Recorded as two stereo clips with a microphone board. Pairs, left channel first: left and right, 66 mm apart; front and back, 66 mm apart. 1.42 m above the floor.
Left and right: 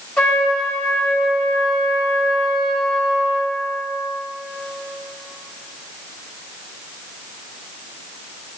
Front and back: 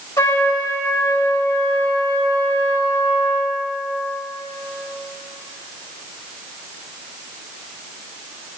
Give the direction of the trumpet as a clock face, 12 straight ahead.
12 o'clock.